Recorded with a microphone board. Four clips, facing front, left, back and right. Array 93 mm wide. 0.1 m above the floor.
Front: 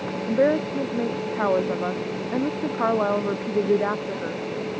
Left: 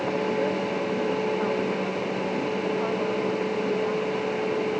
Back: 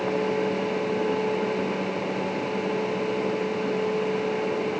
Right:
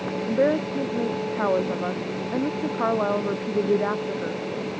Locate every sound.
0.3 s a woman speaking: 35° right